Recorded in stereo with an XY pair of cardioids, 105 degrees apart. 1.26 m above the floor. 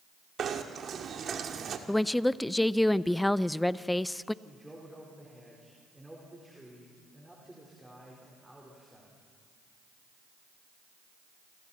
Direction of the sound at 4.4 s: 10° right.